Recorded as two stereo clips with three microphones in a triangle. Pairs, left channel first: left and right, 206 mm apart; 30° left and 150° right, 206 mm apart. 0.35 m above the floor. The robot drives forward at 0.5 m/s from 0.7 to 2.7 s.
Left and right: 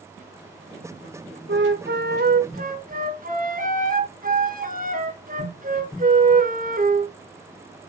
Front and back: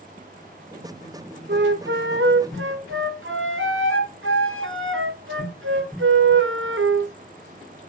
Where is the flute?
115° right, 1.0 m; by 7.1 s 140° right, 1.4 m.